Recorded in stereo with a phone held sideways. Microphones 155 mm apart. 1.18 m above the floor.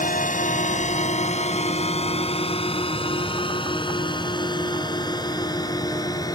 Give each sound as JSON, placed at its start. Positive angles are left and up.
{"t": 0.0, "sound": "a drone", "side_deg": 60}